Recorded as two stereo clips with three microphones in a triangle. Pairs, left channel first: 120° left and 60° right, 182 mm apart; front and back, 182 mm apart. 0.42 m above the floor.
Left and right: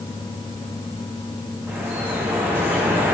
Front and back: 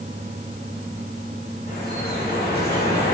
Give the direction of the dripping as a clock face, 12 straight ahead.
11 o'clock.